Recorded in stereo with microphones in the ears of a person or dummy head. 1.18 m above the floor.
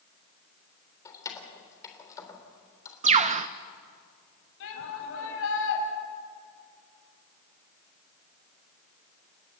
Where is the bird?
35° right (ahead or behind), 0.8 m.